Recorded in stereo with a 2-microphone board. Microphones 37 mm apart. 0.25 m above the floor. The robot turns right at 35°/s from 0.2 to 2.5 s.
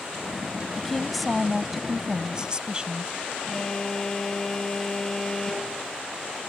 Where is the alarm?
10° left (ahead or behind).